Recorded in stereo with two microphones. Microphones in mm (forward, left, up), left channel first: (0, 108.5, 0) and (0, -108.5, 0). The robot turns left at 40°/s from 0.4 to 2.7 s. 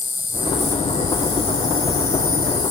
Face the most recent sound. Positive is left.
turn(degrees=75)